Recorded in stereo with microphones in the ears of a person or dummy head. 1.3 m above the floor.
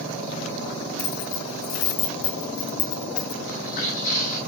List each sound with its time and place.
1.0 s keys jangling: 75° left (ahead or behind), 2 m; by 3.3 s 55° left (ahead or behind), 1.7 m
3.4 s footsteps: 45° left (ahead or behind), 3 m